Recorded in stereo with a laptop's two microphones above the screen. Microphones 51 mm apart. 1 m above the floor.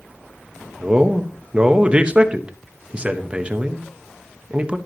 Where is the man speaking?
20° right (ahead or behind), 0.9 m.